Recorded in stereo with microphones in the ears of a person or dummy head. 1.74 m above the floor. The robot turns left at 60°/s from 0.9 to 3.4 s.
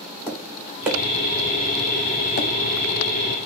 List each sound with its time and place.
0.3 s tapping: 5° right (ahead or behind), 0.6 m; by 2.5 s 50° left (ahead or behind), 0.6 m